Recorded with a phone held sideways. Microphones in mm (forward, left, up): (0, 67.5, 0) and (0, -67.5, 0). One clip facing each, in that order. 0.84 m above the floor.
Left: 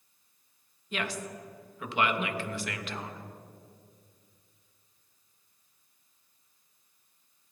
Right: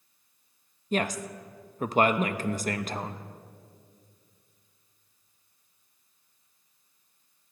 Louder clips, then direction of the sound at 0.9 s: Right 6 dB; 40° right (ahead or behind).